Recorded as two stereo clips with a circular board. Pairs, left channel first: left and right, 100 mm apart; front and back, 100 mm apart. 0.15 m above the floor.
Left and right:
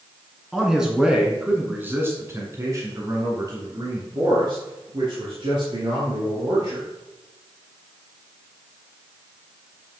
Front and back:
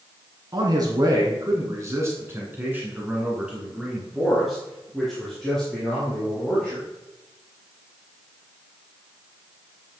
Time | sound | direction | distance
0.5 | a man speaking | 175° right | 2 m